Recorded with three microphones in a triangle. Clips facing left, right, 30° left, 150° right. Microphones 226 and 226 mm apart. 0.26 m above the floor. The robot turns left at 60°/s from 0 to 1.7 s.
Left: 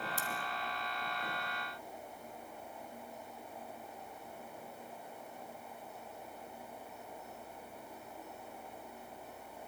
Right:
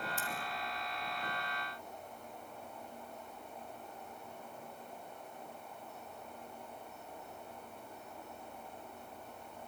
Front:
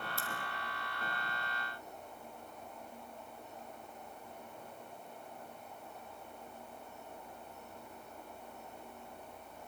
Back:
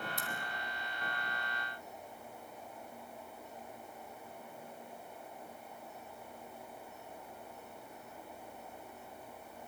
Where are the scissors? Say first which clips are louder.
Even, even; 140° left, 4 m; by 0.3 s 135° left, 4 m.